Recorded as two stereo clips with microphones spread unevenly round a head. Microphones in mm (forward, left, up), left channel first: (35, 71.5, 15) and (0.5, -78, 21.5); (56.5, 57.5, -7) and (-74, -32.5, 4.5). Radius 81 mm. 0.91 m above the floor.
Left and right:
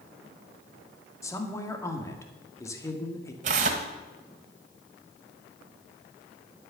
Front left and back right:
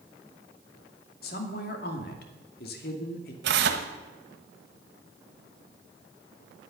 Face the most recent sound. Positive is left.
turn(degrees=-150)